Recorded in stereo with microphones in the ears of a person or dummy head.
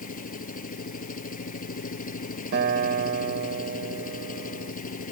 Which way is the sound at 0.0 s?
40° left (ahead or behind).